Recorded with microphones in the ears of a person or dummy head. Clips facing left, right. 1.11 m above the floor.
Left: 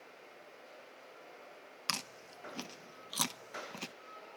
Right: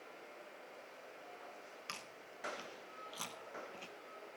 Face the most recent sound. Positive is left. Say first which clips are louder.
# left 5 dB
turn(degrees=75)  # may be behind; listen again after turning